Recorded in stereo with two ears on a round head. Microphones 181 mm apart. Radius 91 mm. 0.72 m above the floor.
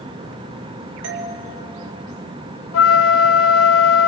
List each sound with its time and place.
1.0 s a doorbell: 60° right (ahead or behind), 3 m
2.7 s a flute: 75° left (ahead or behind), 1.0 m